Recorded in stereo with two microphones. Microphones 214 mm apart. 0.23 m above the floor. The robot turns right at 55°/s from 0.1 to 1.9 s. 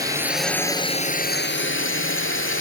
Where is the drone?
15° right; by 2.6 s 80° left.